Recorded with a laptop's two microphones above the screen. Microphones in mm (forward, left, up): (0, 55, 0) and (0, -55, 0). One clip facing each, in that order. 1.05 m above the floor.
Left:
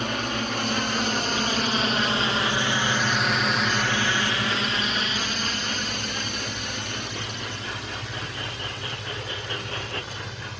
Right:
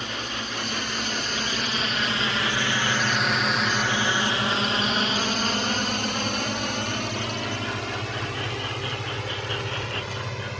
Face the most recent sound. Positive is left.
turn(degrees=-75)  # may be behind; listen again after turning